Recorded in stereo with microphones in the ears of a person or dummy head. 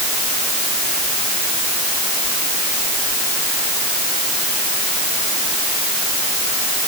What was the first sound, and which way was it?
Only background noise.